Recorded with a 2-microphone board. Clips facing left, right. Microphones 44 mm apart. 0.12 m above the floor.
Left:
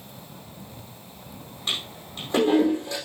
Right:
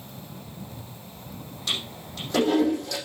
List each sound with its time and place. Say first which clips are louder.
1.7 s a toilet flushing: even; 30° left (ahead or behind), 5 m